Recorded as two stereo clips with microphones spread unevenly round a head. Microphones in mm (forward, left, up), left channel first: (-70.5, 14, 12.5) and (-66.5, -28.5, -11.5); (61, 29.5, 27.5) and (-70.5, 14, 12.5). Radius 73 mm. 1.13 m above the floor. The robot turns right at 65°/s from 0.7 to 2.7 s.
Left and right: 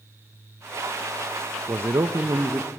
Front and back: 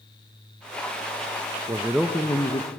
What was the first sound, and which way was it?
A man speaking, 105° right.